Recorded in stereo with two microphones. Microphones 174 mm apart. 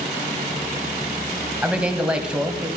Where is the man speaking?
5° right (ahead or behind), 1.7 m.